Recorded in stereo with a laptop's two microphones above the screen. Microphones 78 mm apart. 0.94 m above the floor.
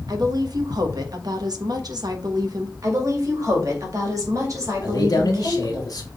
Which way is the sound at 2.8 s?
45° right (ahead or behind).